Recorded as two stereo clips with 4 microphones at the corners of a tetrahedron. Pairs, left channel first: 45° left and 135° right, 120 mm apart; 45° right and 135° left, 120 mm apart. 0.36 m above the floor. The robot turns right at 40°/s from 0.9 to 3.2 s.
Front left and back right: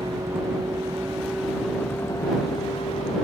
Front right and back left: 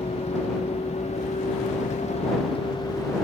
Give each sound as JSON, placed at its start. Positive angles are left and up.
{"t": 0.0, "sound": "a vehicle", "azimuth_deg": -70}